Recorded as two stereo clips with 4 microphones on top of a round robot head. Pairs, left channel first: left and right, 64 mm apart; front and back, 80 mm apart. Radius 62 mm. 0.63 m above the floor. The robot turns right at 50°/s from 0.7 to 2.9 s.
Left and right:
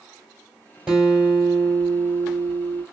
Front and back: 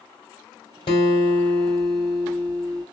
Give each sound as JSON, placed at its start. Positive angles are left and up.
{"t": 0.9, "sound": "a guitar", "azimuth_deg": -5, "distance_m": 3.0}